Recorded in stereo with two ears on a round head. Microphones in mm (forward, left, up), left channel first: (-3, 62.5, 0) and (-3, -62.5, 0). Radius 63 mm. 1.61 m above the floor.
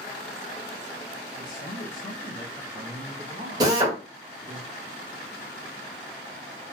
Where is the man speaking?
50° left (ahead or behind), 0.7 m; by 4.6 s 60° right (ahead or behind), 1.2 m.